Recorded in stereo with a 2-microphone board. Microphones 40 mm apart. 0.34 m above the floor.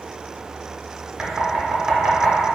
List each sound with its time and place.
1.2 s knocking: 25° right (ahead or behind), 0.7 m